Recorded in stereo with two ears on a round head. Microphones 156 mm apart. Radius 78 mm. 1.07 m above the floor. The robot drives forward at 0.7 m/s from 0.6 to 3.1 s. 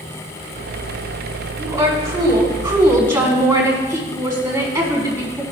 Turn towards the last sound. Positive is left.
turn(degrees=-15)  # may be behind; listen again after turning